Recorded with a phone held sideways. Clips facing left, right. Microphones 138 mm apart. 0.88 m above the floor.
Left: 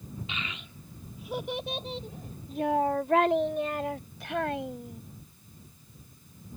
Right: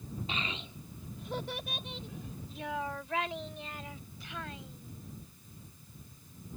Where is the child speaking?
40° right (ahead or behind); by 5.0 s 70° left (ahead or behind).